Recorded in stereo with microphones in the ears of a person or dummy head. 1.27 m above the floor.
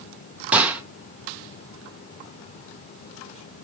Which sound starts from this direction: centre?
A gunshot, at 0.5 s.